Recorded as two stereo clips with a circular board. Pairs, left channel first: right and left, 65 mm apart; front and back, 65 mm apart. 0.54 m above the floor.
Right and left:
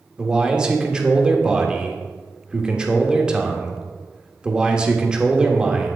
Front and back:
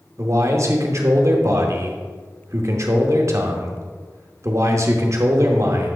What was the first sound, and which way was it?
A man speaking, 165° left.